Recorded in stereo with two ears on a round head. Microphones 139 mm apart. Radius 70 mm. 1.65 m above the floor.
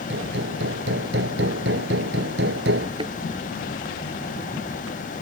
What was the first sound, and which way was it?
Hammering, 85° right.